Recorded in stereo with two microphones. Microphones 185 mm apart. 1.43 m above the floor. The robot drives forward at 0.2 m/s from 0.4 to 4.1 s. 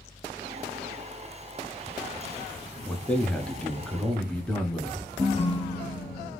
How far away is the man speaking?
About 0.8 m.